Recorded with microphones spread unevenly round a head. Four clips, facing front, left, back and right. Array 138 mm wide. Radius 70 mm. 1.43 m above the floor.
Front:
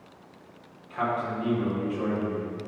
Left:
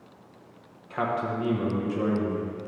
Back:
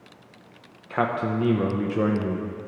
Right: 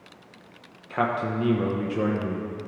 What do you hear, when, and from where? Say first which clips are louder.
0.9 s a man speaking: right 2 dB, back 4 dB; 160° right, 0.8 m